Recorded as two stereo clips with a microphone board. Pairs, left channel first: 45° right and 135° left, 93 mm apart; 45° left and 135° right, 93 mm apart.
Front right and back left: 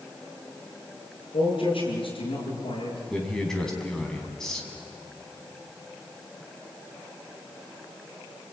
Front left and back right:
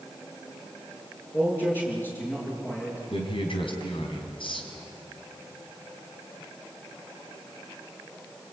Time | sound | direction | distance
1.3 | a man speaking | 25° right | 8 m
3.1 | a man speaking | 40° left | 4 m